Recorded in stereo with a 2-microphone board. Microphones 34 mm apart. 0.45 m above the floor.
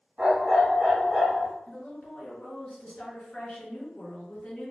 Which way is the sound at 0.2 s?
25° right (ahead or behind).